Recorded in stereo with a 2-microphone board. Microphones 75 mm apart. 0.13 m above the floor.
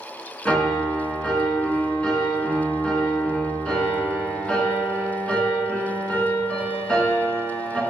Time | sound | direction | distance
0.5 | a piano | 15° left (ahead or behind) | 1.5 m